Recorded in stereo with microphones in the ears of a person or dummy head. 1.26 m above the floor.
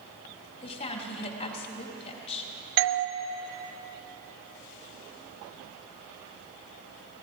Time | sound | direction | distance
0.6 | a woman speaking | 35° left (ahead or behind) | 2 m
2.8 | a doorbell | 60° right (ahead or behind) | 0.8 m